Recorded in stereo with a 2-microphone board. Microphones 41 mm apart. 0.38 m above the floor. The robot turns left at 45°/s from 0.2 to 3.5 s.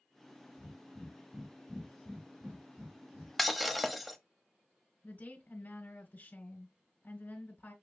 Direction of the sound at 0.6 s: 45° left (ahead or behind).